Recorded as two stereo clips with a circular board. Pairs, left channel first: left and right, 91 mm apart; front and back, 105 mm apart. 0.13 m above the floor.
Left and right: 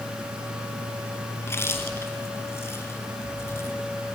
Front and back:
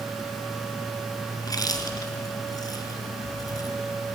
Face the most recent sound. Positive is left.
turn(degrees=40)